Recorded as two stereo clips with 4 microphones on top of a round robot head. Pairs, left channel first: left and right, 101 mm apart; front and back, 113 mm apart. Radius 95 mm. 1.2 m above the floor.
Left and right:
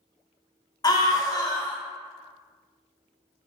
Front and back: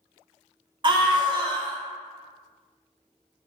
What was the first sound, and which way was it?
A scream, 140° left.